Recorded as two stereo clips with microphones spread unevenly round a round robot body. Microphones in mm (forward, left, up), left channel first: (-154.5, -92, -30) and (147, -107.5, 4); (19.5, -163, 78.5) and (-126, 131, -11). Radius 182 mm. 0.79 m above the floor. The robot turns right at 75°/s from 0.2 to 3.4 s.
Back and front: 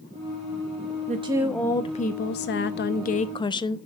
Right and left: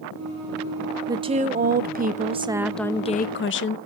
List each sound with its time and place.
1.1 s a woman speaking: 60° left, 0.6 m; by 3.8 s 125° right, 0.6 m